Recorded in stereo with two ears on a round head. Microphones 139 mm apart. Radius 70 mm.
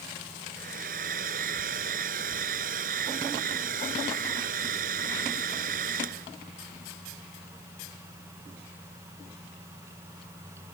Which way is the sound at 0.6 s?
55° right (ahead or behind).